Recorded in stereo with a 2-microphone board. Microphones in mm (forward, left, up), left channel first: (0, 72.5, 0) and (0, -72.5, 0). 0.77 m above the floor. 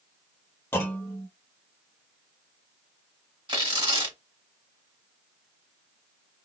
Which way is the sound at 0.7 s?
15° left (ahead or behind).